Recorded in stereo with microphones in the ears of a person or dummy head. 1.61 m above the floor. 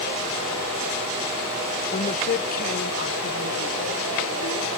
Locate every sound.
1.9 s a woman speaking: 30° left (ahead or behind); by 4.7 s 70° left (ahead or behind)